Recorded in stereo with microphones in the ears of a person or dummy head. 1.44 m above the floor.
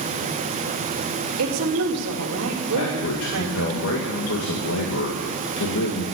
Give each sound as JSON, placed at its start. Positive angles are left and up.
{"t": 1.4, "sound": "a woman speaking", "side_deg": -85, "distance_m": 2.5}
{"t": 2.7, "sound": "a man speaking", "side_deg": 75, "distance_m": 1.9}